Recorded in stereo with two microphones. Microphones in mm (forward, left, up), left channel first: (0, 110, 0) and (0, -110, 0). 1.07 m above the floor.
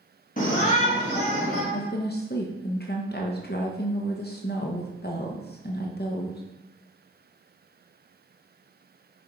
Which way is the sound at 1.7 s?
45° left (ahead or behind).